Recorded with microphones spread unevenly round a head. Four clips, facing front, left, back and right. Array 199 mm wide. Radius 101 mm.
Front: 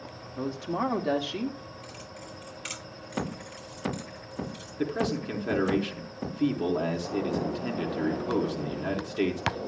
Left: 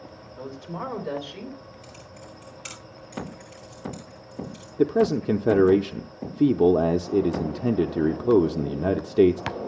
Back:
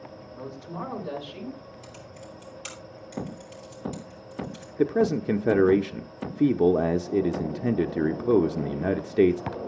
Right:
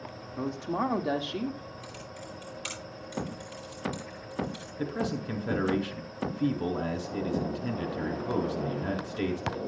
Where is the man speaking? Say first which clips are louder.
Left 12 dB, back 6 dB; 105° left, 0.8 m.